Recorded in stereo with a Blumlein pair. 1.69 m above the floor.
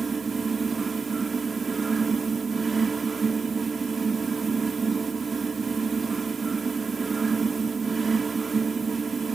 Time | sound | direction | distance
0.0 | a fan | 15° right | ?